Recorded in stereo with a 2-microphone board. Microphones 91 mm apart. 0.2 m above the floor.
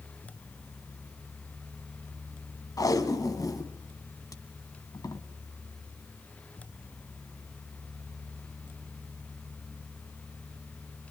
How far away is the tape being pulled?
About 1.4 m.